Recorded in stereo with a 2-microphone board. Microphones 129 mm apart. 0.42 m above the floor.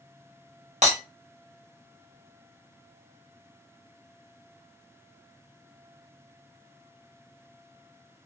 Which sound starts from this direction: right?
Breaking glass, at 0.8 s.